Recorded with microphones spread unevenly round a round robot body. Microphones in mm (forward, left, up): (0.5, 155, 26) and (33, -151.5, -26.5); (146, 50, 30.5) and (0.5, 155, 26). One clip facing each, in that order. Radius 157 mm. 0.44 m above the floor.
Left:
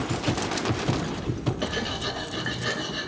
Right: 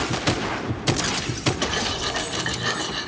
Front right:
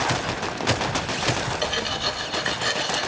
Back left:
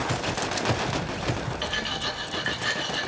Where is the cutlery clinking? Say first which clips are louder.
Right 2 dB, front right 5 dB; 30° right, 0.7 m.